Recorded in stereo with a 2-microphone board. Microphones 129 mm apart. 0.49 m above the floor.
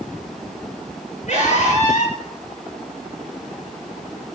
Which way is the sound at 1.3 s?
70° left (ahead or behind).